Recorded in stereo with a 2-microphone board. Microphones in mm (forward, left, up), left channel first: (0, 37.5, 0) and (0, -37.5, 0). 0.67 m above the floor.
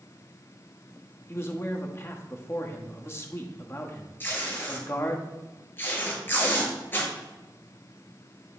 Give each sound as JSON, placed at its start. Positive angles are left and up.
{"t": 1.3, "sound": "a man speaking", "side_deg": 35, "distance_m": 1.0}
{"t": 4.2, "sound": "tape being pulled", "side_deg": 25, "distance_m": 3.0}